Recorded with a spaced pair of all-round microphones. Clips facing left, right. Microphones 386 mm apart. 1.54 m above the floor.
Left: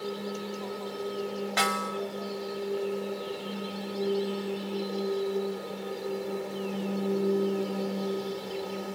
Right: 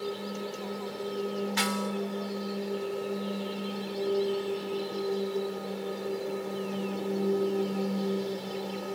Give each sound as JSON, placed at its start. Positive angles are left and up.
{"t": 1.6, "sound": "a snare drum", "side_deg": 80}